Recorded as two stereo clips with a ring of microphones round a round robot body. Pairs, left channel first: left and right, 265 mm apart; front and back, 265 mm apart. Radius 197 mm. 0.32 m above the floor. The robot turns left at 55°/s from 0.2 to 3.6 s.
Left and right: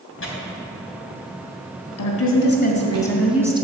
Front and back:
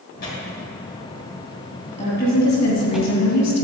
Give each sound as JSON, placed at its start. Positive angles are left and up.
{"t": 0.2, "sound": "tearing paper", "azimuth_deg": 60, "distance_m": 3.0}
{"t": 2.0, "sound": "a woman speaking", "azimuth_deg": 70, "distance_m": 2.5}